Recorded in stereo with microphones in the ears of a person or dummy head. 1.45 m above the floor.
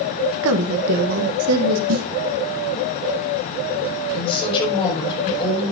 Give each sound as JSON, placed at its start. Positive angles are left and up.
{"t": 0.4, "sound": "a woman speaking", "side_deg": -75, "distance_m": 1.1}
{"t": 1.9, "sound": "a snare drum", "side_deg": -85, "distance_m": 0.9}
{"t": 4.1, "sound": "a woman speaking", "side_deg": 30, "distance_m": 7.0}